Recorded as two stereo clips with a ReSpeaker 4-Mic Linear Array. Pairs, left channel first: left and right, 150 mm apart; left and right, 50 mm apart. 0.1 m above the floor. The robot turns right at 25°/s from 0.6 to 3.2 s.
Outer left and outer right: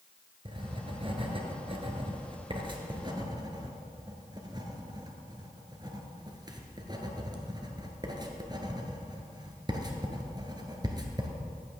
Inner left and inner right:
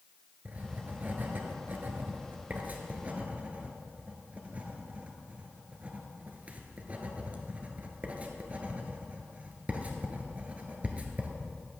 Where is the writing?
35° right (ahead or behind), 1.2 m; by 11.3 s 30° right (ahead or behind), 1.2 m.